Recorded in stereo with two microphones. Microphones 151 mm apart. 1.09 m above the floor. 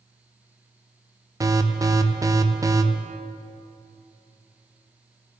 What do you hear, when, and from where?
1.4 s an alarm: 20° right (ahead or behind), 0.5 m